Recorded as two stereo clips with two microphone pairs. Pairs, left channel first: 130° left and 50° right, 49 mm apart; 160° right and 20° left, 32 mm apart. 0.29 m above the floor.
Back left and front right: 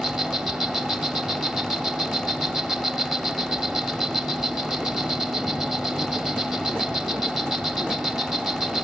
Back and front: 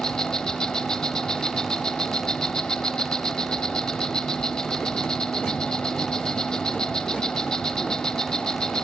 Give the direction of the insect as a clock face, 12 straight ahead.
4 o'clock.